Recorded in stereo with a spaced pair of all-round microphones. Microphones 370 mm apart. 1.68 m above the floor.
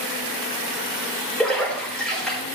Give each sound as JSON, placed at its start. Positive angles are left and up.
{"t": 1.4, "sound": "a splash", "side_deg": 0, "distance_m": 4.5}